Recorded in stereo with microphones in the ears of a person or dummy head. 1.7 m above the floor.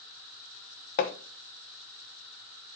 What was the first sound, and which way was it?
Hammering, 45° left (ahead or behind).